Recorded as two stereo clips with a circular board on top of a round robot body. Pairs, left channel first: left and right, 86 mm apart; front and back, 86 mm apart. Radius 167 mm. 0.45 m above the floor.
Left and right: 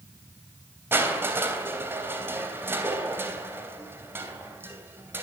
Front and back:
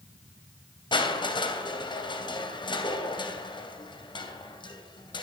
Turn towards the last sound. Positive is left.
turn(degrees=-25)